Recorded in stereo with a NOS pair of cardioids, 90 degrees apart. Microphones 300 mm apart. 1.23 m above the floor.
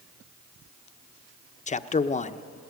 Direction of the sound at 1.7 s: 25° left.